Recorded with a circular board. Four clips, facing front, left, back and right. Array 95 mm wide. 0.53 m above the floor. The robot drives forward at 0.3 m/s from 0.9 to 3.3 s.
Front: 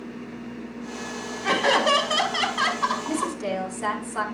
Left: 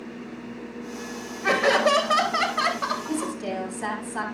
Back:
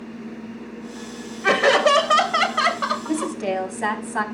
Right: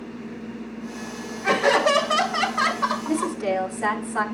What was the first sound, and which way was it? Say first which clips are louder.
Laughter: right 1 dB, back 5 dB; 170° left.